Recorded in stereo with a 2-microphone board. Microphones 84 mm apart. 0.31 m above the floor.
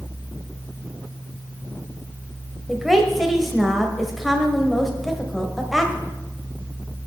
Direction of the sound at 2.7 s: Centre (ahead or behind).